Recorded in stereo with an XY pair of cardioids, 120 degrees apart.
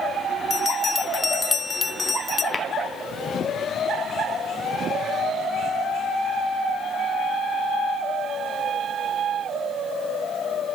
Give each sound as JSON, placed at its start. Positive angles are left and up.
{"t": 0.5, "sound": "a bell", "azimuth_deg": 25, "distance_m": 0.6}
{"t": 2.5, "sound": "tapping", "azimuth_deg": 25, "distance_m": 1.1}